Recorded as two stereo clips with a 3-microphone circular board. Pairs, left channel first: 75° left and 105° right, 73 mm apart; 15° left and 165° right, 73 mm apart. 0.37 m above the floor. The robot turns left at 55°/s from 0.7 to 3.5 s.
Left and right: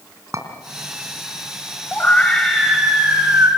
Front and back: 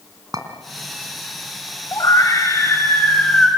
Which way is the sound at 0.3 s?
145° right.